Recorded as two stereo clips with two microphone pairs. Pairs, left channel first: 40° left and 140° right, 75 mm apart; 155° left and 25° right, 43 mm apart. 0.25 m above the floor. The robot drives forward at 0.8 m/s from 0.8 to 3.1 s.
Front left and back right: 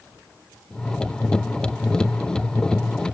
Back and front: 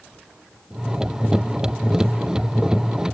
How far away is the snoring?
No snoring in this recording.